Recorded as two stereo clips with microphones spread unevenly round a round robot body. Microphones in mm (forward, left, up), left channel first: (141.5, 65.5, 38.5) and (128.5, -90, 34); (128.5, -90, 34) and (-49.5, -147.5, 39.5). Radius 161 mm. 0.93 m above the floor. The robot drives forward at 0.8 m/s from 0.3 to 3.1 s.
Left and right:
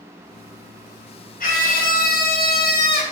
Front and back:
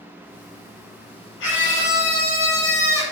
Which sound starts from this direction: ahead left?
A scream, at 1.4 s.